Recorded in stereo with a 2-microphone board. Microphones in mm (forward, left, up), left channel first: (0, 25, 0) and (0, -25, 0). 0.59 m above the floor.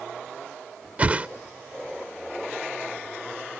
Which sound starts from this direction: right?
A whoosh, at 1.0 s.